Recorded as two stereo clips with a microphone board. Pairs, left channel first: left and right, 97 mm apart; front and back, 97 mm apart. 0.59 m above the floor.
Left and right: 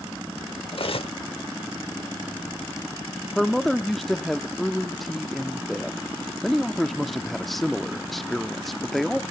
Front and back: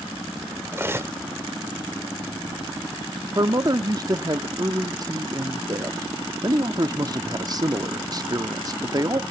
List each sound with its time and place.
0.7 s cutlery clinking: 115° left, 0.9 m
3.4 s a man speaking: 175° left, 0.9 m